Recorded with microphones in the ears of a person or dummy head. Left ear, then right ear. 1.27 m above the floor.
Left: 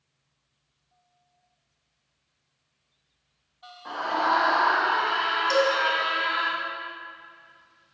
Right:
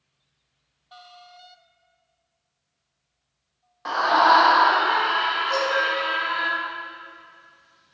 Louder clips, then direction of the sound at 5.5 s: Left 1 dB; 65° left (ahead or behind).